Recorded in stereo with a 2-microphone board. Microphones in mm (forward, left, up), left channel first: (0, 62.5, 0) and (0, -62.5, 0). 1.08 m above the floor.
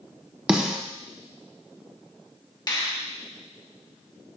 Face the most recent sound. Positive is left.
turn(degrees=35)  # may be behind; listen again after turning